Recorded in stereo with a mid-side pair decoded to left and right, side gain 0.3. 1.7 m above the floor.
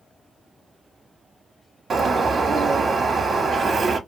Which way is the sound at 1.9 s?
65° right.